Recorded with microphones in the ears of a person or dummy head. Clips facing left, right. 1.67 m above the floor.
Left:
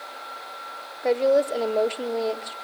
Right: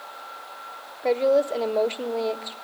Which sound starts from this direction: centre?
A woman speaking, at 1.0 s.